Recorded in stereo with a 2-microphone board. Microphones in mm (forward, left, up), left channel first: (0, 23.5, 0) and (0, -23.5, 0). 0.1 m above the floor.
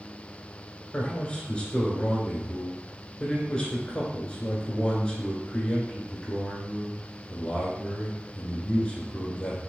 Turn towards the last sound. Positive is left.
turn(degrees=20)  # may be behind; listen again after turning